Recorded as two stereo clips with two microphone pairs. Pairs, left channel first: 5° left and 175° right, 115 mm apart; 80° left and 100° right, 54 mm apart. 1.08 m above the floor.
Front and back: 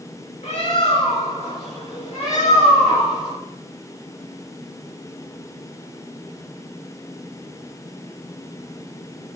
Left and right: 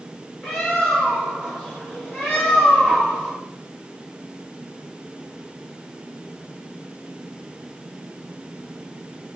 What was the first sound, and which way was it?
A bird, straight ahead.